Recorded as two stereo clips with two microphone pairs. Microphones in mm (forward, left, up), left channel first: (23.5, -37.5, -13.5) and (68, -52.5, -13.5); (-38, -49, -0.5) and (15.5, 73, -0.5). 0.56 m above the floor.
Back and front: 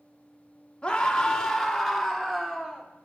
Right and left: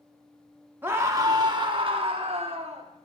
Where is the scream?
120° left, 1.0 m; by 2.9 s 60° left, 1.6 m.